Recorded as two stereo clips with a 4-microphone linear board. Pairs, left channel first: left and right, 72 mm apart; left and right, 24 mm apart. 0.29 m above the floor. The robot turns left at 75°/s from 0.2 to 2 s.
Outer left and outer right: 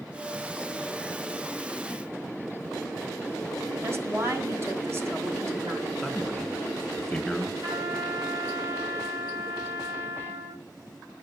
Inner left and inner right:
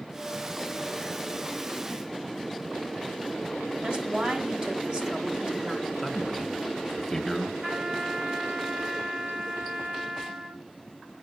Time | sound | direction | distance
3.8 | a woman speaking | 40° right (ahead or behind) | 2 m
6.0 | a man speaking | 5° left (ahead or behind) | 1.9 m
7.6 | a trumpet | 60° right (ahead or behind) | 3.5 m